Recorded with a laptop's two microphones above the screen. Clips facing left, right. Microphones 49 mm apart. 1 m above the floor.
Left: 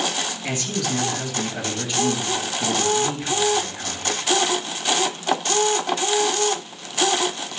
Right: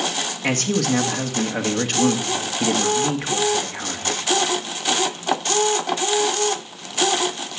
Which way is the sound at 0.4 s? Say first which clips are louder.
Right 8 dB; 65° right (ahead or behind).